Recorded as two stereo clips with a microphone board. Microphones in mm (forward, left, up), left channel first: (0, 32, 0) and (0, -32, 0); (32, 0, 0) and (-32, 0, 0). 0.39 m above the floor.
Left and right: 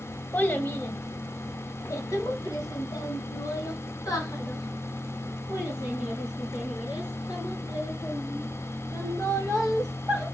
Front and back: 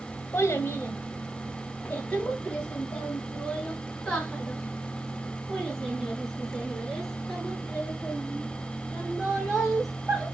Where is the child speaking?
35° left, 1.2 m; by 10.2 s 85° left, 6 m.